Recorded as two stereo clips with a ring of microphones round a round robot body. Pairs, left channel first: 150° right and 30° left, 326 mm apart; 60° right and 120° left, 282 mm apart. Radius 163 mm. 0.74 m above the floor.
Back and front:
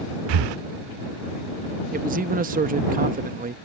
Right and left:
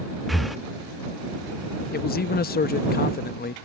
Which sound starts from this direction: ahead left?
Breathing, at 0.3 s.